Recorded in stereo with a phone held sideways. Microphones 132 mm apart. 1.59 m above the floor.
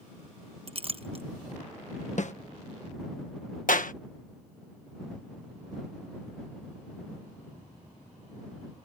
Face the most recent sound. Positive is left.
turn(degrees=80)